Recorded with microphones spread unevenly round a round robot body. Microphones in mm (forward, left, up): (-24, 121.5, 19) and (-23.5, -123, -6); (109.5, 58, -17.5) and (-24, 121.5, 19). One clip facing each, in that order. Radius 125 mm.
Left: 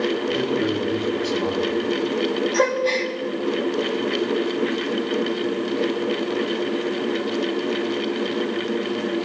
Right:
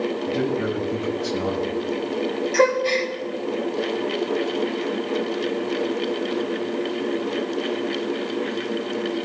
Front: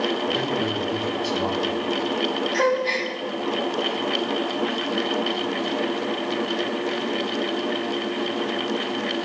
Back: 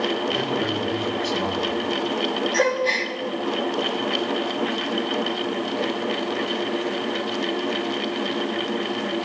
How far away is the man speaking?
About 5.5 m.